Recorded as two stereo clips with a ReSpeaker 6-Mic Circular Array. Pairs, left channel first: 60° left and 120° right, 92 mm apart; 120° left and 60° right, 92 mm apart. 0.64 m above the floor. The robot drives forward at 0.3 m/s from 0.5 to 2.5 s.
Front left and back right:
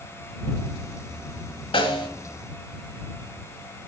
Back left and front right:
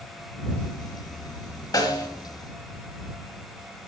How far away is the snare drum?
About 1.5 m.